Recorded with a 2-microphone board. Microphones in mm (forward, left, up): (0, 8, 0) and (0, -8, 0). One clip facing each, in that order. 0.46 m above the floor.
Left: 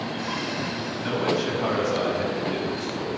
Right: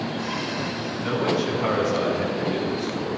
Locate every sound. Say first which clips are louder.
1.0 s a man speaking: right 1 dB; 20° left (ahead or behind), 3.5 m